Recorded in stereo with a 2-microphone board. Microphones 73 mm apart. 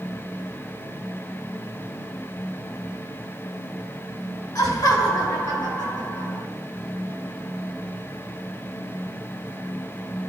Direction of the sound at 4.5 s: 60° left (ahead or behind).